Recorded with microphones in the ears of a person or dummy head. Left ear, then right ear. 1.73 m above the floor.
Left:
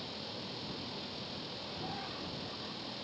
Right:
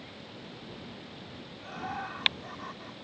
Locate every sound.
0.0 s a fan: 40° left (ahead or behind)
1.6 s laughter: 50° right (ahead or behind)